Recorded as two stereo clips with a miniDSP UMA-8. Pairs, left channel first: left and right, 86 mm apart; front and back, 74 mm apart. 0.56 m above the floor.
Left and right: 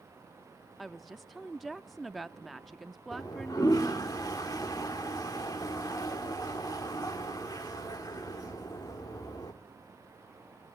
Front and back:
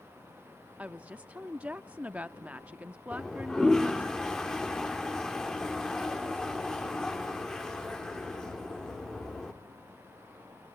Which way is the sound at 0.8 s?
Straight behind.